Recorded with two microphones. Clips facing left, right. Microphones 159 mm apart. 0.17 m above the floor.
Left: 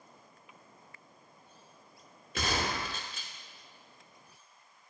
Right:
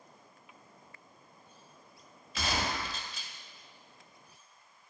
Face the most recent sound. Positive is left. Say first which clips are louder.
# left 1 dB
turn(degrees=60)  # may be behind; listen again after turning